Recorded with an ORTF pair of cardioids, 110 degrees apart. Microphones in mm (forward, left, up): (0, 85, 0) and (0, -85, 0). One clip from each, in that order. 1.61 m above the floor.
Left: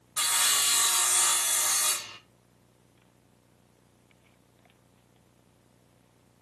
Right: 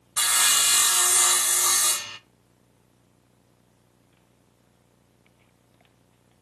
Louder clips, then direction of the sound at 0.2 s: Right 4 dB; 25° right.